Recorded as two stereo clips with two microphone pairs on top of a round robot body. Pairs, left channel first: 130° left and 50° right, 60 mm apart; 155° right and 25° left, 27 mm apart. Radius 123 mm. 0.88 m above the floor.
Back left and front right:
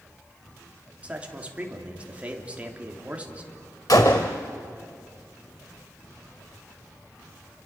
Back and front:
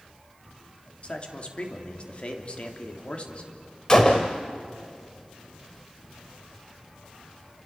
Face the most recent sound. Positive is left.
turn(degrees=115)